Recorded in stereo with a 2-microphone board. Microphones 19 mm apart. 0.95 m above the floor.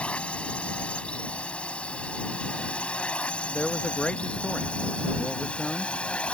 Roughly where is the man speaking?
Left.